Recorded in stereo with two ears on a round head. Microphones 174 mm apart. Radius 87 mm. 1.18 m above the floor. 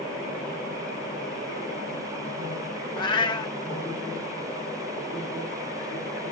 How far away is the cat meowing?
About 0.7 m.